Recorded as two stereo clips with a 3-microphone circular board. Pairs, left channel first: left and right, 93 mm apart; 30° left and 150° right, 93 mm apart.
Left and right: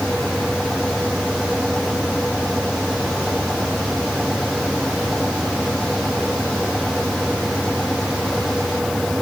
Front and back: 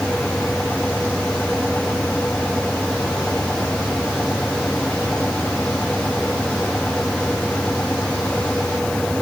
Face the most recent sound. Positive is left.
No sound to turn to.